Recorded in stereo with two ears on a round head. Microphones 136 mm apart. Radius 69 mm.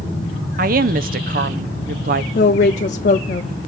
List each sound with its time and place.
0.6 s a woman speaking: 60° right (ahead or behind), 0.6 m
2.4 s a woman speaking: 45° left (ahead or behind), 0.5 m